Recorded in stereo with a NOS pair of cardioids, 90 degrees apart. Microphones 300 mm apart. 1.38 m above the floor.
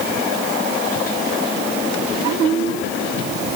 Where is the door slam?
I don't hear a door slam.